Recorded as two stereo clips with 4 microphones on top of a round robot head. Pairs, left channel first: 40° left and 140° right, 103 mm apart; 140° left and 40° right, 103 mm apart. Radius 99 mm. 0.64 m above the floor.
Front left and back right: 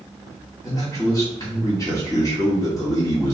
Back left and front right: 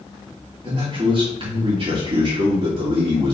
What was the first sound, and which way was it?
A man speaking, 15° right.